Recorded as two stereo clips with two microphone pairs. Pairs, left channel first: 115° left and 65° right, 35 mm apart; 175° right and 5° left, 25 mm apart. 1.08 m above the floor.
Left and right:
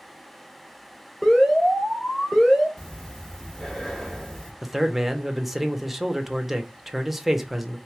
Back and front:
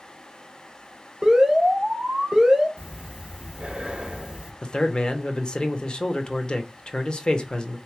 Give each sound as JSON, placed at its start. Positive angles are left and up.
{"t": 1.2, "sound": "an alarm", "azimuth_deg": 50, "distance_m": 1.4}
{"t": 2.8, "sound": "breathing", "azimuth_deg": 45, "distance_m": 0.9}
{"t": 4.6, "sound": "a man speaking", "azimuth_deg": -150, "distance_m": 0.6}